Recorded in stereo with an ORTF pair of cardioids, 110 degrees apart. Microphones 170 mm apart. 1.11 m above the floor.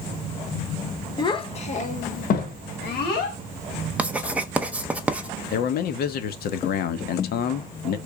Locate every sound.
1.2 s a child speaking: 25° left, 0.9 m; by 3.4 s 75° left, 1.7 m
4.0 s writing: 5° right, 0.5 m
5.5 s a man speaking: 65° left, 0.8 m